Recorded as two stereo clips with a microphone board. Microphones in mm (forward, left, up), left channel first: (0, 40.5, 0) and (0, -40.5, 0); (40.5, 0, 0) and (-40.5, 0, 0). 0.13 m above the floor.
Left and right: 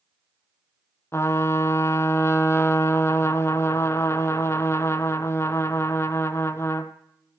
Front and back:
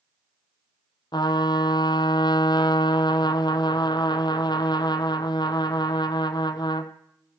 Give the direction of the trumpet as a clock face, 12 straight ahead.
11 o'clock.